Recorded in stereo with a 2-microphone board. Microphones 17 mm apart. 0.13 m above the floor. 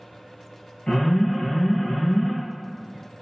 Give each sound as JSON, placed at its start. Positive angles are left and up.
{"t": 0.9, "sound": "an alarm", "side_deg": 50, "distance_m": 1.5}